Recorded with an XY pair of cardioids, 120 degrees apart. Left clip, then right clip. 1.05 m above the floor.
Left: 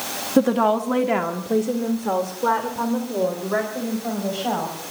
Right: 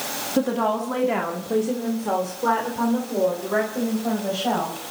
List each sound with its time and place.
0.4 s a woman speaking: 30° left, 1.4 m; by 4.8 s 5° left, 5 m